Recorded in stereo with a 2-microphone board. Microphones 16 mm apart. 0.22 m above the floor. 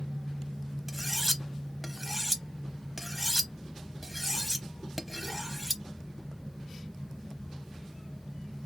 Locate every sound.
0.9 s cutlery clinking: centre (ahead or behind), 0.7 m